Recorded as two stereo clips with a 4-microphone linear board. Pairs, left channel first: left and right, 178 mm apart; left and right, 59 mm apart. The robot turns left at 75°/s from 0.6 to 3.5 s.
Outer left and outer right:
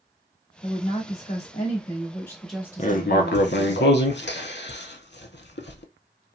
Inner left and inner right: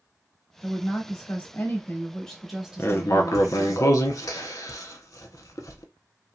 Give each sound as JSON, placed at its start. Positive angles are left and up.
{"t": 0.6, "sound": "a woman speaking", "azimuth_deg": 140, "distance_m": 1.1}
{"t": 2.8, "sound": "writing", "side_deg": 40, "distance_m": 0.5}